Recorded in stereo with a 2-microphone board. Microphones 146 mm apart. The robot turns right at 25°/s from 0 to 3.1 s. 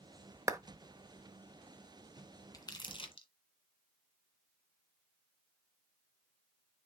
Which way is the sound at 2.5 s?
25° left (ahead or behind).